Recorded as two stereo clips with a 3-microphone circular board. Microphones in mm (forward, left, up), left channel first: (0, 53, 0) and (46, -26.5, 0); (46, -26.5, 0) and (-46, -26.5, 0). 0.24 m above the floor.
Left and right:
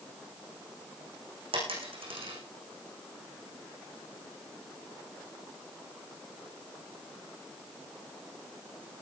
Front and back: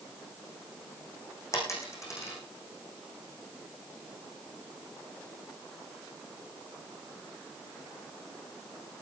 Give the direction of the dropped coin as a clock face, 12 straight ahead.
2 o'clock.